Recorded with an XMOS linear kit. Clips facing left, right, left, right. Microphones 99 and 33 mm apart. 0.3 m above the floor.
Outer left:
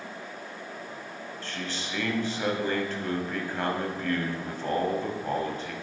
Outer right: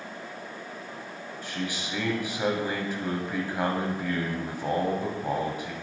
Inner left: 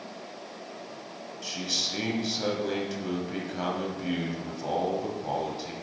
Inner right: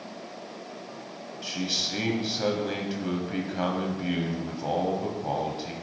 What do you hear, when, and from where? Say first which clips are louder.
1.4 s a man speaking: outer right 3 dB, inner right 2 dB; 10° right (ahead or behind), 1.3 m